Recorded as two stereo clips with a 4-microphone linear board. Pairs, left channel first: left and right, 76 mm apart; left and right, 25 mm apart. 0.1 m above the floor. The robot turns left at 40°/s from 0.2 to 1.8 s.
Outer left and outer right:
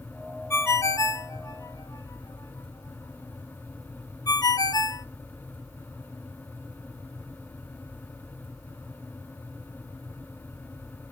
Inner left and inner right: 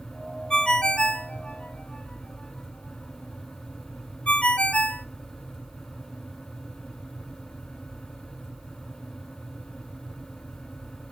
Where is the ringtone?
35° left (ahead or behind), 0.7 m; by 5.0 s 55° left (ahead or behind), 0.7 m.